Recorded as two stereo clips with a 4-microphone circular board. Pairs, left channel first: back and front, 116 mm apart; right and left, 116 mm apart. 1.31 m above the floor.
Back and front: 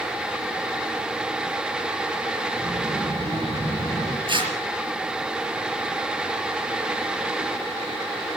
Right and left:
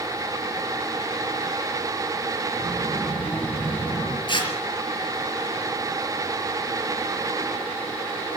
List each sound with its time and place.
2.6 s a child speaking: 20° right, 7 m; by 4.2 s 15° right, 8.5 m
4.3 s tearing paper: 45° right, 5 m